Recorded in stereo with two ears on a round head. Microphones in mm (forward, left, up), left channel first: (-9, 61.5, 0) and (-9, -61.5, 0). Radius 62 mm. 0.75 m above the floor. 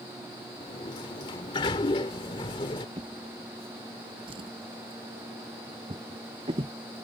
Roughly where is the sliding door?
Left.